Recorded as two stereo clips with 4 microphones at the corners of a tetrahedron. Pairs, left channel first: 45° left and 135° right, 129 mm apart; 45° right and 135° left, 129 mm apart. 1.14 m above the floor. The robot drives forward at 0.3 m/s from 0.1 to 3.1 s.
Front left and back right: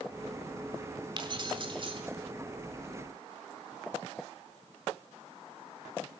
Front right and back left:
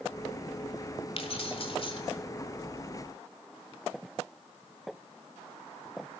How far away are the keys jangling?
About 2.5 m.